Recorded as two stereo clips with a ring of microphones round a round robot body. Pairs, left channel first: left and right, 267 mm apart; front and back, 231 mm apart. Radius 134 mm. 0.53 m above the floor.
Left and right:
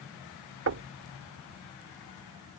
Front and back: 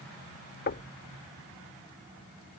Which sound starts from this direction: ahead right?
Knocking, at 0.7 s.